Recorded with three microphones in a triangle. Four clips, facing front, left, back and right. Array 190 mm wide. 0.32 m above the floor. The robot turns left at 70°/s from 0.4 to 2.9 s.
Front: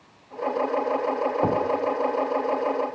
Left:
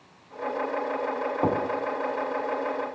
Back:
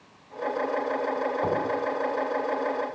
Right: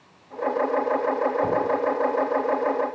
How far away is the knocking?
About 3 m.